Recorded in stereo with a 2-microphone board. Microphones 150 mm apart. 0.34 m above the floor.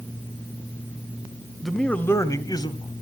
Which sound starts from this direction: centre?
A man speaking, at 1.6 s.